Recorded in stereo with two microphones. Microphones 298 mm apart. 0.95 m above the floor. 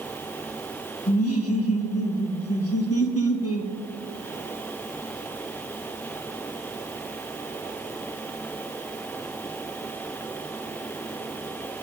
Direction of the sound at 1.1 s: 50° left (ahead or behind).